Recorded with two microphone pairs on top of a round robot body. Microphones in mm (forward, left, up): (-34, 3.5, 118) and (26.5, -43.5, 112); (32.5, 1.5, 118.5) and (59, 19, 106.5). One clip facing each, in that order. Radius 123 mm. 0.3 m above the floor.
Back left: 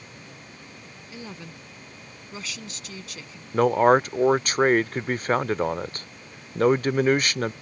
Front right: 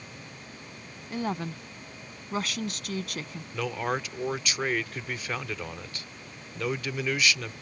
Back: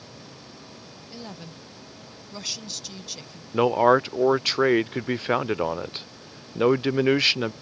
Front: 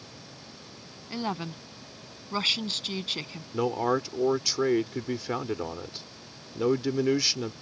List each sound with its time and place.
1.1 s a woman speaking: 5° right
3.5 s a man speaking: 165° left